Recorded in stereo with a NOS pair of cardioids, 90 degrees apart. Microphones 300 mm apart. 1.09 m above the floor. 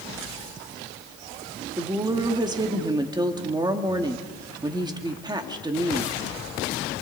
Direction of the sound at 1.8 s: 15° right.